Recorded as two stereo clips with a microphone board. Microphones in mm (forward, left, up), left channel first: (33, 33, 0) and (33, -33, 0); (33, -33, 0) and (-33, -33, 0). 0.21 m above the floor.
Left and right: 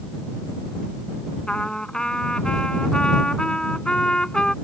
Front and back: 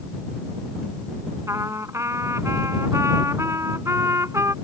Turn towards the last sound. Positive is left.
turn(degrees=160)